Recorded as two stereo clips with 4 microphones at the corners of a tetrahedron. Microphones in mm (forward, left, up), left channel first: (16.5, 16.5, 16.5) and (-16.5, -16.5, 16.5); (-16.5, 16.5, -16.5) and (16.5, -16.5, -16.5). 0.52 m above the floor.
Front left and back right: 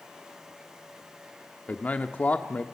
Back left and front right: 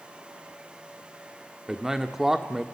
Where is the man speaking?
25° left, 1.2 m.